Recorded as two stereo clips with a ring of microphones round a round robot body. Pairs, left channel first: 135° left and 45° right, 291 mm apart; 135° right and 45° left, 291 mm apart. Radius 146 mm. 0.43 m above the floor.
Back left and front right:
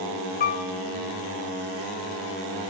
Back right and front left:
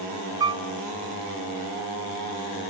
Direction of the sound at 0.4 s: 110° left.